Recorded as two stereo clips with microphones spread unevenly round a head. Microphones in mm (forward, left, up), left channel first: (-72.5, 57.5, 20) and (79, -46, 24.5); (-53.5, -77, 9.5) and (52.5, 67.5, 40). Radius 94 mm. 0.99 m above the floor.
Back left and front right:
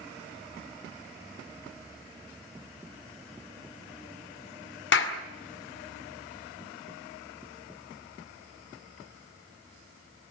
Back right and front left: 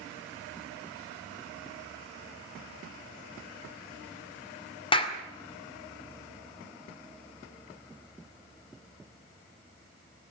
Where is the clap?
170° left, 2 m.